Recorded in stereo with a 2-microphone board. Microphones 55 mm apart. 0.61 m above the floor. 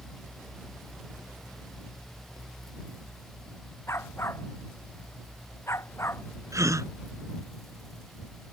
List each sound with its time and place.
3.9 s a dog barking: 55° left (ahead or behind)
6.5 s a gasp: 75° right (ahead or behind)